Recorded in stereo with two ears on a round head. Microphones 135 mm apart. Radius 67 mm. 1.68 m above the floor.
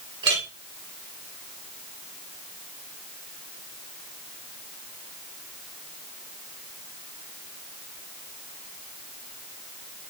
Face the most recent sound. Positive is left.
turn(degrees=-35)  # may be behind; listen again after turning